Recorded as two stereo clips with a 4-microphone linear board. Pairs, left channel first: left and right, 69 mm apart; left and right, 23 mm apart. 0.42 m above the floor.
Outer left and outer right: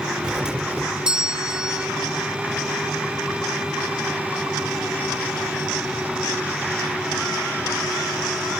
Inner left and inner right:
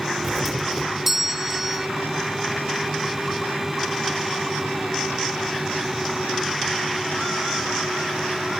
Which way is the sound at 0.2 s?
10° right (ahead or behind).